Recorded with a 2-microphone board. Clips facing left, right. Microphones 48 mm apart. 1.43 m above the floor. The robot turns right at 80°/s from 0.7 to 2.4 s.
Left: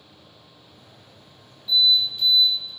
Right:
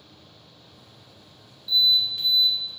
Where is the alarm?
120° right, 2 m; by 2.7 s 65° right, 2 m.